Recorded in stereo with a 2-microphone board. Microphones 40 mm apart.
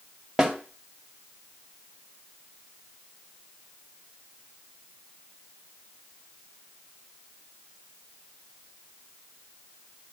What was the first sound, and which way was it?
A snare drum, 15° right (ahead or behind).